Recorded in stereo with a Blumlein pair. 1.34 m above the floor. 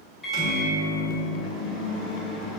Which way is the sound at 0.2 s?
15° left.